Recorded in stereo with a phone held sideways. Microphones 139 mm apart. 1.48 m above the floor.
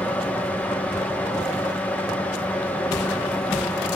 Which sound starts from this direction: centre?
A fan, at 0.0 s.